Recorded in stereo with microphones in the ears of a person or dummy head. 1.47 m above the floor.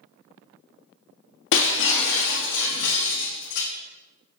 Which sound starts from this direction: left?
Breaking glass, at 1.5 s.